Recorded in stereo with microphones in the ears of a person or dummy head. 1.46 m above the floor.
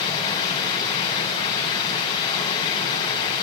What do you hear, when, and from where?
0.0 s running water: 25° left (ahead or behind), 8.5 m